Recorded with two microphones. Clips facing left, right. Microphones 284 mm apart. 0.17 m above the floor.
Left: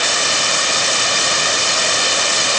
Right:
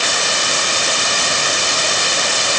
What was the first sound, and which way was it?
Only background noise.